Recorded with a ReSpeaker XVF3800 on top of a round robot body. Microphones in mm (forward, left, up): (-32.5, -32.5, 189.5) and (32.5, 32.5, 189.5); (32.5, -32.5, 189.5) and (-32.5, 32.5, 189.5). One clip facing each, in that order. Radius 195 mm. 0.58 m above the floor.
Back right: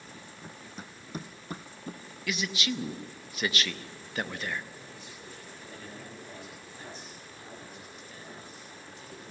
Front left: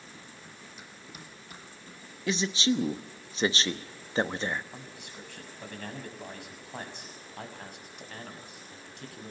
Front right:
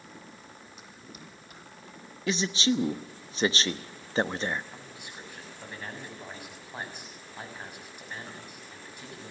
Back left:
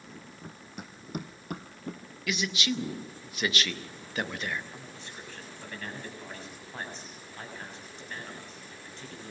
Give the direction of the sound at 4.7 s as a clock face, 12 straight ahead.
11 o'clock.